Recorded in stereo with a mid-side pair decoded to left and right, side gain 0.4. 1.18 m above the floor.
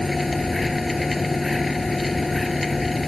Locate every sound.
0.0 s a machine running: 20° left